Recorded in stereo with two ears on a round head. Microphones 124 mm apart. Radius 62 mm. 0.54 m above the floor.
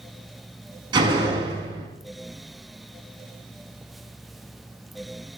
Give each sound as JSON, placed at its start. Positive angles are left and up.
{"t": 0.9, "sound": "a door slam", "side_deg": -30, "distance_m": 4.5}